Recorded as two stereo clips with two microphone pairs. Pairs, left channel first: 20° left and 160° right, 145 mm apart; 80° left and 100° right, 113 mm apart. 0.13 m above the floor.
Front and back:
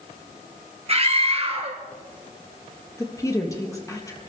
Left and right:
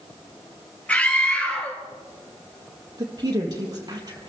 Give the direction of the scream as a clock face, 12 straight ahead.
7 o'clock.